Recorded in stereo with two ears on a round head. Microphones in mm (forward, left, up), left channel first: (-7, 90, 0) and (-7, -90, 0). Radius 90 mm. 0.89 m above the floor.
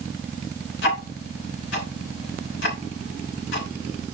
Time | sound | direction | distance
0.8 | ticking | 60° left (ahead or behind) | 3.5 m